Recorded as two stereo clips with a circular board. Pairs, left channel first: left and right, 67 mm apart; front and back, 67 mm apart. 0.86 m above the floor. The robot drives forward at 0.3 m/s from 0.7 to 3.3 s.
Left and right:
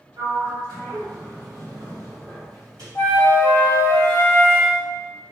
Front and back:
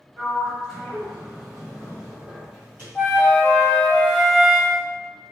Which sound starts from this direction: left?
A flute, at 3.0 s.